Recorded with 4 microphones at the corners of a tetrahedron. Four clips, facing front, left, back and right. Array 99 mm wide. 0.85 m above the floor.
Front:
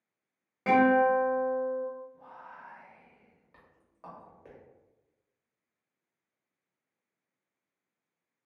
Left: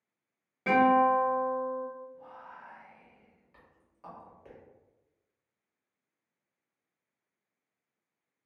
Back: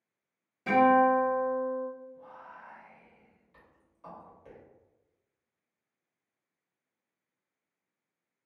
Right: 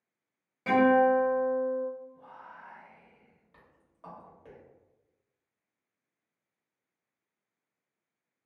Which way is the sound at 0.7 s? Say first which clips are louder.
Right 1 dB, even; 10° left.